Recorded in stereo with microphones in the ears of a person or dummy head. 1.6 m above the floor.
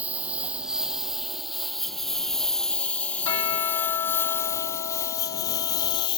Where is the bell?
15° left (ahead or behind).